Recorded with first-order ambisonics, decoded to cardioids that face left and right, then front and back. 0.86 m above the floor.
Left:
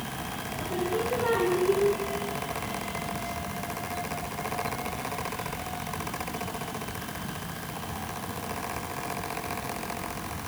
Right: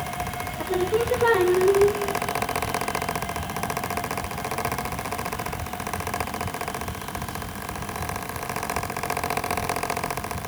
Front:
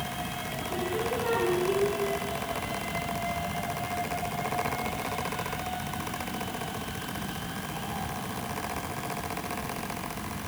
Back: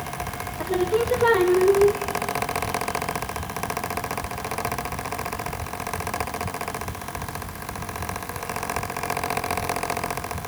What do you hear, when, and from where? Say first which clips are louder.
0.6 s singing: right 6 dB, back 9 dB; 145° right, 2.5 m